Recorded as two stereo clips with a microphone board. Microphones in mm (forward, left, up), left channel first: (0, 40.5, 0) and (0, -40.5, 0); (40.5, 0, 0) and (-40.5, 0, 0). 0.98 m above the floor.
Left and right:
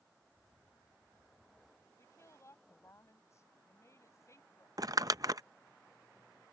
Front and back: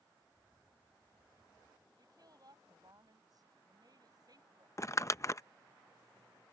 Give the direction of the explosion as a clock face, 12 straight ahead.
No explosion in this recording.